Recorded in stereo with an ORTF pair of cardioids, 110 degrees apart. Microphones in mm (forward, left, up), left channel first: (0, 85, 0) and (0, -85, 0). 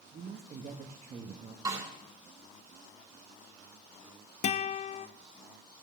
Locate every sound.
0.1 s a woman speaking: 45° right, 1.3 m
1.6 s a snare drum: 20° right, 3.5 m
4.4 s a guitar: 45° left, 0.6 m